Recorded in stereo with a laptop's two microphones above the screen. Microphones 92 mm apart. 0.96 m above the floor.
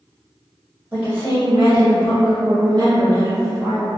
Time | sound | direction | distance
0.9 | a woman speaking | 30° right (ahead or behind) | 0.8 m